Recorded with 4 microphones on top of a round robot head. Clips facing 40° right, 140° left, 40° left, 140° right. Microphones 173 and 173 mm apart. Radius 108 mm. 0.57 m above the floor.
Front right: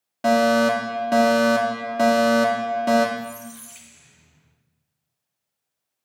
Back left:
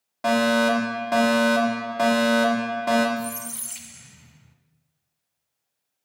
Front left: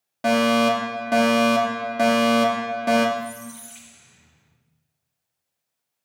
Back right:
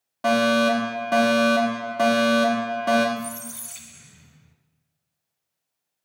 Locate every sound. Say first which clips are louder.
0.2 s a fire alarm: front right 3 dB, front left 1 dB; 10° right, 1.9 m
3.2 s a squeak: back left 2 dB, front left 2 dB; 170° left, 0.9 m